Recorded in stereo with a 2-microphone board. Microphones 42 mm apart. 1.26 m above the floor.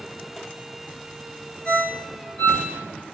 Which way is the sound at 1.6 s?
30° left (ahead or behind).